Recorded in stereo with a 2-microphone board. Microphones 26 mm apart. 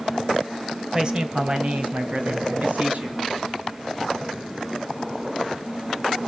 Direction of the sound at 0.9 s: 25° right (ahead or behind).